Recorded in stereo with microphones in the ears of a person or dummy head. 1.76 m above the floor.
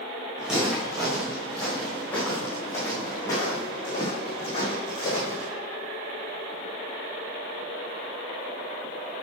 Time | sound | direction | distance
0.4 | footsteps | centre (ahead or behind) | 4 m